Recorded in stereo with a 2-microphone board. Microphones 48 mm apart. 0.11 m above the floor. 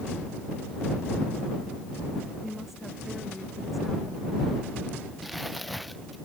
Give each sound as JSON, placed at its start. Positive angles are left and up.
{"t": 2.4, "sound": "a woman speaking", "side_deg": -5}
{"t": 5.2, "sound": "crumpling", "side_deg": 0}